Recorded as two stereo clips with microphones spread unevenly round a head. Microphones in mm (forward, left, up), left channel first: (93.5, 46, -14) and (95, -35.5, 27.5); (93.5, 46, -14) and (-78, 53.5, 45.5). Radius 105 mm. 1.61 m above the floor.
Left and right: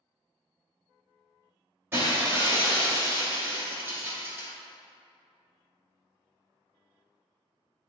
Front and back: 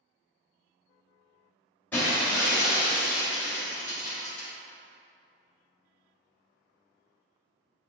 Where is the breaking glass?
100° right, 2.0 m.